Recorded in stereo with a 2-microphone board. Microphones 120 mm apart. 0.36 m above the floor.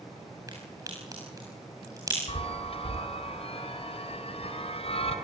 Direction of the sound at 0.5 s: 30° right (ahead or behind).